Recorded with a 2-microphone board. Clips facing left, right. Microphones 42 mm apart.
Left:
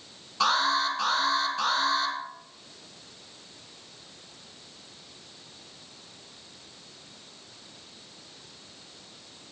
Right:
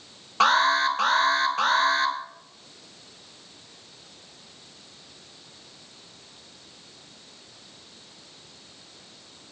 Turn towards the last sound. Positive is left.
turn(degrees=-55)  # may be behind; listen again after turning